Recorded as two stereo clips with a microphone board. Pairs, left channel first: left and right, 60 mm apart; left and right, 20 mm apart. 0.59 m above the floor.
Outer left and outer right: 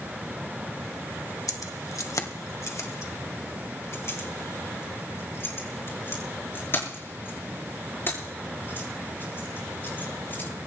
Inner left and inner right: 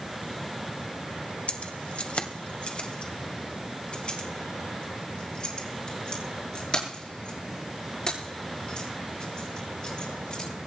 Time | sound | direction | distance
1.5 | keys jangling | 75° left (ahead or behind) | 1.7 m